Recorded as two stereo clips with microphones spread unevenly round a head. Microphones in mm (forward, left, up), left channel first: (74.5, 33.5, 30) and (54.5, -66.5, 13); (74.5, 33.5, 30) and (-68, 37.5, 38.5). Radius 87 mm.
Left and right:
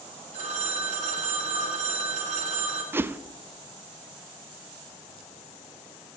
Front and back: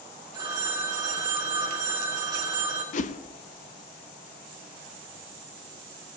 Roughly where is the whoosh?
Ahead right.